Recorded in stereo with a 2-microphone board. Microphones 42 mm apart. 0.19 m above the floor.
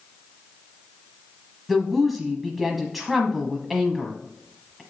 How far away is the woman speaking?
About 1.0 m.